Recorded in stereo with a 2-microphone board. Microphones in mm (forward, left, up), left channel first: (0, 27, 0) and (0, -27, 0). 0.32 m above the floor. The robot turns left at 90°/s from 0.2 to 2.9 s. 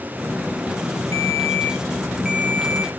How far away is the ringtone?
About 2.5 m.